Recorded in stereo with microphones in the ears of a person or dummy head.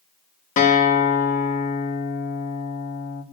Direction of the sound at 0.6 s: 50° left (ahead or behind).